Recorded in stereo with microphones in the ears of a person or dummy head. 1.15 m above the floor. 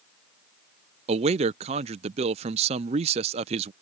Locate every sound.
1.1 s a man speaking: 30° right (ahead or behind)